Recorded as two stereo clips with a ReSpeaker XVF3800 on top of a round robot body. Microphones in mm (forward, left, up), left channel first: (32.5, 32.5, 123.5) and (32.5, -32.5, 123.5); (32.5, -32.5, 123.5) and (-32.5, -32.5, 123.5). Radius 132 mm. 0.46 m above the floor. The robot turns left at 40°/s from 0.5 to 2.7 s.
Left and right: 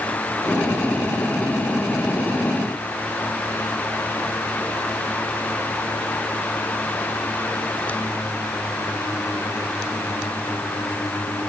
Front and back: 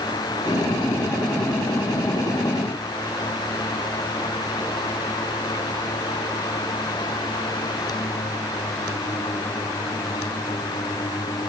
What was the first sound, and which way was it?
Only background noise.